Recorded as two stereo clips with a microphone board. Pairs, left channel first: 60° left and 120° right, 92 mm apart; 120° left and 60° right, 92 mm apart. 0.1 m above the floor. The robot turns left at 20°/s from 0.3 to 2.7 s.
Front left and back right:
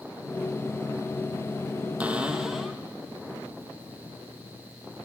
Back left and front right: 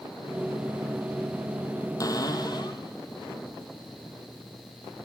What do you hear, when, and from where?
2.0 s a cupboard door: 165° left, 1.1 m; by 2.8 s 150° left, 1.1 m